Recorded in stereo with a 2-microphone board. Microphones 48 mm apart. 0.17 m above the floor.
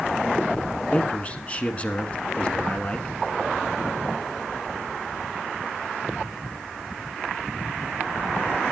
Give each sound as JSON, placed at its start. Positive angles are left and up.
{"t": 0.9, "sound": "a man speaking", "side_deg": 30, "distance_m": 1.5}